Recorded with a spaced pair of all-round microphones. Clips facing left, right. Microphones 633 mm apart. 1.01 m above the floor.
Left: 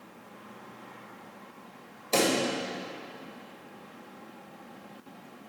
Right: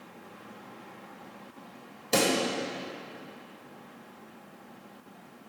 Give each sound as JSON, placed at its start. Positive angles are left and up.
{"t": 2.1, "sound": "a pop", "side_deg": -40, "distance_m": 1.1}